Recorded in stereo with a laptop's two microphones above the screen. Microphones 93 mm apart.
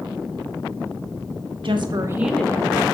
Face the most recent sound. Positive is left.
turn(degrees=45)  # may be behind; listen again after turning